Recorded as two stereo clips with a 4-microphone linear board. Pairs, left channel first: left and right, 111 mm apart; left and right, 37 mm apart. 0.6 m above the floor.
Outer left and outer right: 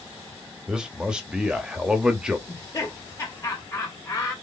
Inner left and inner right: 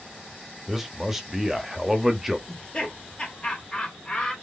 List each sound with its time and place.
0.7 s a man speaking: 5° right (ahead or behind), 0.9 m
2.5 s laughter: 30° left (ahead or behind), 1.3 m